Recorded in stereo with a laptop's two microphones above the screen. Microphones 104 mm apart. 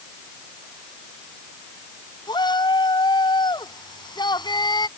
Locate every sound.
2.3 s a shout: 45° left (ahead or behind)